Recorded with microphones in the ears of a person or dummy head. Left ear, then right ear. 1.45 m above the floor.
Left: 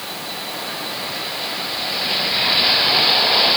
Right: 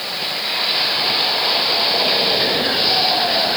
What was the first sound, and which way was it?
Only background noise.